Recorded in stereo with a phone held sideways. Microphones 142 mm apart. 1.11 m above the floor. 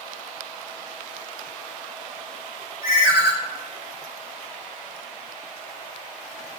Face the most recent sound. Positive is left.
turn(degrees=-25)  # may be behind; listen again after turning